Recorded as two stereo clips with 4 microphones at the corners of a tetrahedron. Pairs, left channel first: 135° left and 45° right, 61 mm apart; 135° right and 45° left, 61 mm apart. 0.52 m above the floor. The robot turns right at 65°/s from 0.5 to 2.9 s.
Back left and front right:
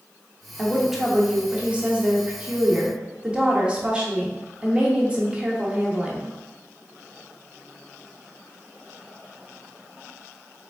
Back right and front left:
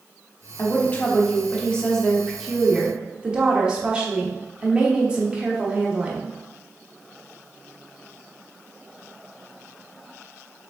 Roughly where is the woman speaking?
Behind right.